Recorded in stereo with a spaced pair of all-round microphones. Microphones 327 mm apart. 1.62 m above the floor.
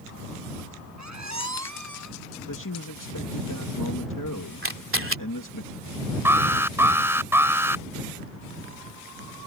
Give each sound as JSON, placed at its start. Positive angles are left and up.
{"t": 1.0, "sound": "a squeak", "side_deg": -55}
{"t": 2.5, "sound": "a man speaking", "side_deg": 65}
{"t": 4.6, "sound": "a camera shutter", "side_deg": -40}
{"t": 6.2, "sound": "an alarm", "side_deg": -5}